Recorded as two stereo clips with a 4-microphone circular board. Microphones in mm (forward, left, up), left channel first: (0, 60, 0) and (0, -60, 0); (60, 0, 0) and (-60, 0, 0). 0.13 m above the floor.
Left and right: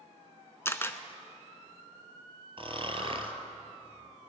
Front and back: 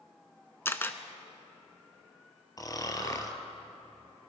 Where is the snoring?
55° right, 1.2 m.